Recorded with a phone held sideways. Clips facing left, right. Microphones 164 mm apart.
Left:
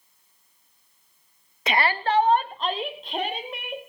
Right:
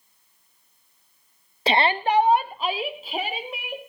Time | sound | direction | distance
1.7 | a shout | 30° right (ahead or behind) | 0.5 m